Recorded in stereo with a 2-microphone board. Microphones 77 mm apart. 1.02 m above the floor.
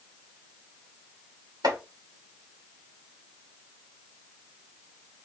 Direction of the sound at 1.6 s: 80° right.